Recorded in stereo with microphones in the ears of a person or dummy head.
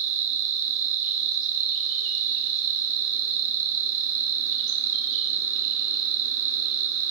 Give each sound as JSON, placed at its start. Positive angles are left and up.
{"t": 0.0, "sound": "an insect", "side_deg": -65, "distance_m": 3.0}